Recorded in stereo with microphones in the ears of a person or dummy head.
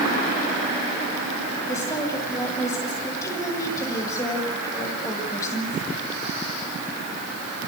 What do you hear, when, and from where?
1.7 s a woman speaking: 20° left (ahead or behind), 7.5 m